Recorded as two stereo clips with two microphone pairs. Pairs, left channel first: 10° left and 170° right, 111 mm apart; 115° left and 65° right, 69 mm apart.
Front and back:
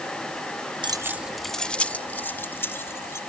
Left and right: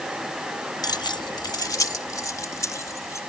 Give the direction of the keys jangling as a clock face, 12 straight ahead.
7 o'clock.